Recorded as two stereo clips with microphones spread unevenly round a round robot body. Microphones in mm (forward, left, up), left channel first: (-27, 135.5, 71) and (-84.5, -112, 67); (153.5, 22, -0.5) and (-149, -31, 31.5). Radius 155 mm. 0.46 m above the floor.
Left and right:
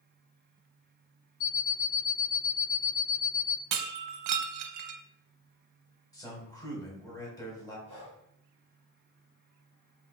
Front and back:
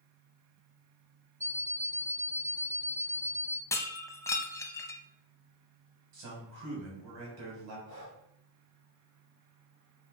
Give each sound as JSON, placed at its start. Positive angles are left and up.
{"t": 1.4, "sound": "an alarm clock", "azimuth_deg": 105, "distance_m": 0.7}
{"t": 3.7, "sound": "breaking glass", "azimuth_deg": -75, "distance_m": 0.6}
{"t": 6.1, "sound": "a man speaking", "azimuth_deg": 155, "distance_m": 3.5}
{"t": 7.9, "sound": "breathing", "azimuth_deg": 145, "distance_m": 4.0}